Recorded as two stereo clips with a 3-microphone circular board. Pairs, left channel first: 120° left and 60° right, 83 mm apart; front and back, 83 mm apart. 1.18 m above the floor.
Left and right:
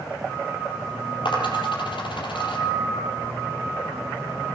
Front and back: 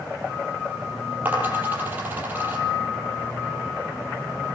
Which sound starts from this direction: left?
A dropped coin, at 1.2 s.